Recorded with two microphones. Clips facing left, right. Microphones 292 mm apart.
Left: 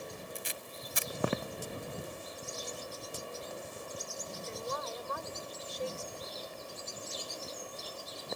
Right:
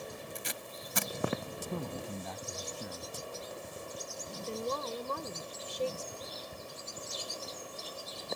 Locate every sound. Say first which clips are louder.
0.3 s tape being pulled: right 1 dB; 65° right (ahead or behind)
1.7 s a man speaking: right 3 dB; 80° right
4.4 s a woman speaking: right 5 dB; 40° right (ahead or behind)
6.5 s a cupboard door: even; 50° right (ahead or behind)